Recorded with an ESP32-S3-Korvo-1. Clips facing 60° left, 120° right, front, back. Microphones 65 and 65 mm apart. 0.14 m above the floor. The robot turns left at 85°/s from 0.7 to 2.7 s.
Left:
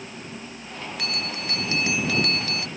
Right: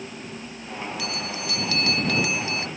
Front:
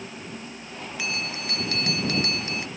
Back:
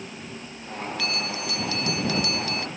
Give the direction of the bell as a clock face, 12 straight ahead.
10 o'clock.